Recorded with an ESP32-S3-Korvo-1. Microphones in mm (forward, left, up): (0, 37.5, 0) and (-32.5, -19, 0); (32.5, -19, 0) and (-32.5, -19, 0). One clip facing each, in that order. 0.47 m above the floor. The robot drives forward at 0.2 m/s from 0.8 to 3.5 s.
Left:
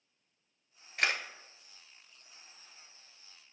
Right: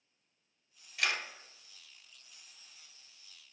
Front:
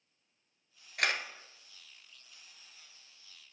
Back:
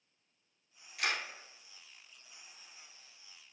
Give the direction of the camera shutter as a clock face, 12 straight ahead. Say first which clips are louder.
Left 2 dB, front 3 dB; 11 o'clock.